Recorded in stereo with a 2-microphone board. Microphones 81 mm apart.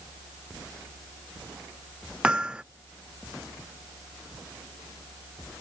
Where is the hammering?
10° right (ahead or behind).